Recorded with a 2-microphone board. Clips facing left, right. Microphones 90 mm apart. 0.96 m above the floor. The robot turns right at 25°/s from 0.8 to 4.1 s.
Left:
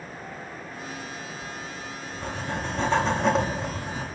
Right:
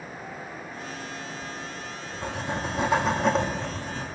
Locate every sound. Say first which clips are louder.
1.4 s writing: even; 45° right, 2 m; by 4.0 s 20° left, 2 m